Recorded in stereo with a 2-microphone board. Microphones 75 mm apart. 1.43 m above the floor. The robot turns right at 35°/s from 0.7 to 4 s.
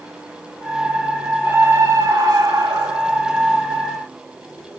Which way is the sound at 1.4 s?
150° right.